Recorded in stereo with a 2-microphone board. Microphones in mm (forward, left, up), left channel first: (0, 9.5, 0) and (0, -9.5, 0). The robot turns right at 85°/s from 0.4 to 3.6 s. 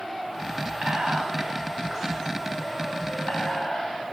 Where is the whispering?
65° right (ahead or behind), 2 m; by 4.1 s 60° left (ahead or behind), 2 m.